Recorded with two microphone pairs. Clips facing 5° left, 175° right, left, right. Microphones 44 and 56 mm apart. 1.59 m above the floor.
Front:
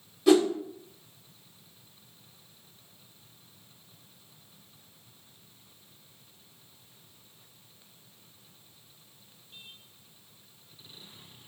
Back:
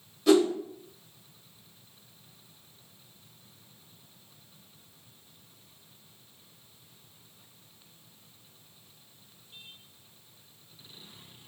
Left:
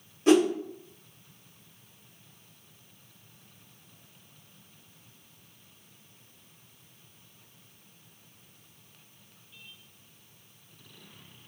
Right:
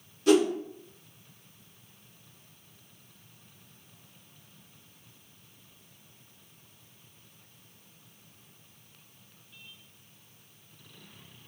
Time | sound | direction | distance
0.3 | a whoosh | 75° left | 0.8 m